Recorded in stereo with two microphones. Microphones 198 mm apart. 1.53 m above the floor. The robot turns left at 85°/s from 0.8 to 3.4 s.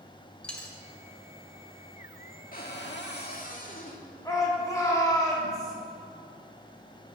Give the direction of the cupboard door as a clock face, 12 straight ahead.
8 o'clock.